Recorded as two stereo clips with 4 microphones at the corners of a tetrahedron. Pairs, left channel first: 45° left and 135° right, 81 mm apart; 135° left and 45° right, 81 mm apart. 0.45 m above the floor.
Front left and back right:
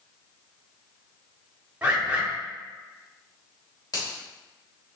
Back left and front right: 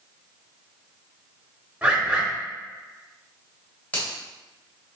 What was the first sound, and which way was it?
A bird, 80° right.